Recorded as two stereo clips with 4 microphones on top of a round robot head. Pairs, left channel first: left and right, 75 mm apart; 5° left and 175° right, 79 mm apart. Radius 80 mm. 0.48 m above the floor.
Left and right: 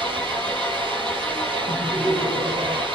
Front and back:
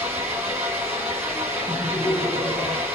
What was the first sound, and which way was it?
An engine running, 95° right.